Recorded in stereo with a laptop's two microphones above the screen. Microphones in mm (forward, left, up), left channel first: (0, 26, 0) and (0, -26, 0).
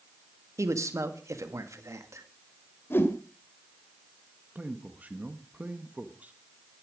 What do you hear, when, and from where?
0.6 s a man speaking: 80° right, 1.8 m
2.9 s a whoosh: 50° left (ahead or behind), 2 m
4.5 s a man speaking: 30° right (ahead or behind), 1.0 m